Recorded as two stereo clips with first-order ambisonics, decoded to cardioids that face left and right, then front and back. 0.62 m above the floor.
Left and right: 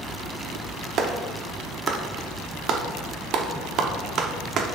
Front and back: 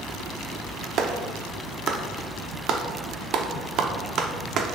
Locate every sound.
1.0 s a clap: 135° right, 0.6 m